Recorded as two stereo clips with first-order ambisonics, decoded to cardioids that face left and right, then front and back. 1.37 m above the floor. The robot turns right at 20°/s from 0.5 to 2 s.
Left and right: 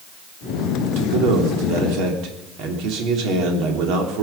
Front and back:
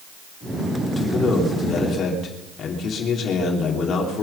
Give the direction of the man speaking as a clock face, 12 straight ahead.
3 o'clock.